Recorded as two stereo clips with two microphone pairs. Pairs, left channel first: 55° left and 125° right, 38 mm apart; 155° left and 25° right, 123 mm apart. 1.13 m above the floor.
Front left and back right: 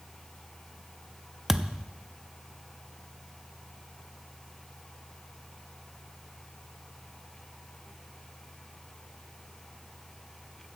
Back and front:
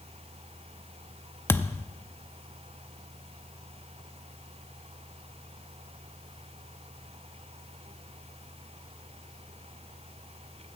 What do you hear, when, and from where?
1.5 s a thud: 175° left, 0.5 m